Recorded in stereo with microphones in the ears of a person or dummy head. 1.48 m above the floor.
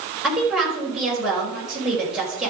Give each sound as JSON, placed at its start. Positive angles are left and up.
{"t": 0.2, "sound": "a woman speaking", "side_deg": -5, "distance_m": 5.0}